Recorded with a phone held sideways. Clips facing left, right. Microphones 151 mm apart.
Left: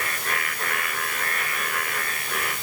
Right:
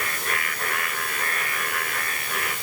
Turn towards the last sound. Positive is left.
No sound to turn to.